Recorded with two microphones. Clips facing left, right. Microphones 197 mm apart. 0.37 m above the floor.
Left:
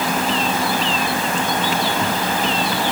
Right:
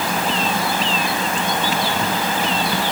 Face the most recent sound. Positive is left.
No sound to turn to.